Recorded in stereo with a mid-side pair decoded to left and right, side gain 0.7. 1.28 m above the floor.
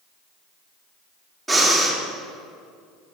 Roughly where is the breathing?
Ahead.